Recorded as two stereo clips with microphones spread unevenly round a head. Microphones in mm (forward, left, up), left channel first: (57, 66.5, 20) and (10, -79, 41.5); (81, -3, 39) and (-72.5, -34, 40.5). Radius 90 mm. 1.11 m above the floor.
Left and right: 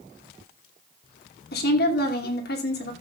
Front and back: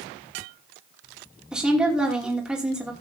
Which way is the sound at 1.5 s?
105° left.